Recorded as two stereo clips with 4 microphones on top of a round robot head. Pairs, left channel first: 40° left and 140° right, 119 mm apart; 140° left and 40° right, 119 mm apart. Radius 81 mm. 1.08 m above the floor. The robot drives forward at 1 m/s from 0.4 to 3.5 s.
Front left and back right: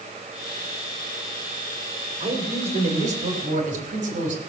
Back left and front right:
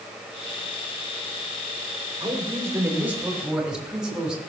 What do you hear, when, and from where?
2.2 s a man speaking: 100° right, 2.5 m; by 4.4 s 125° right, 3 m